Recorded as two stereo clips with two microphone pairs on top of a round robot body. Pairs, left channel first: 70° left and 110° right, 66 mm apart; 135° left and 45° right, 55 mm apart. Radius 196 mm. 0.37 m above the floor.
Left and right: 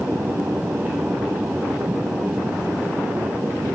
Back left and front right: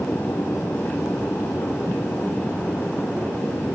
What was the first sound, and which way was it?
Only background noise.